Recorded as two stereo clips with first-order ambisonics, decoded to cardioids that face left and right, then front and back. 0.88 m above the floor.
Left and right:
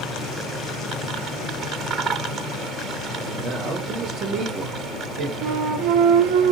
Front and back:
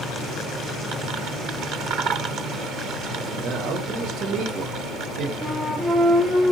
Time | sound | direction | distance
3.2 | a man speaking | 135° right | 0.9 m
5.4 | a flute | 85° right | 0.8 m